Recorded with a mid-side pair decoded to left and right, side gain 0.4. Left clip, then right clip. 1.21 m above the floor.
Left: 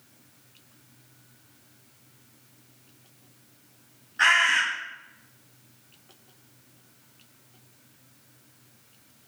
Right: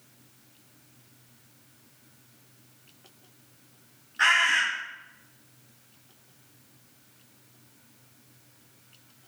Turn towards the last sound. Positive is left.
turn(degrees=10)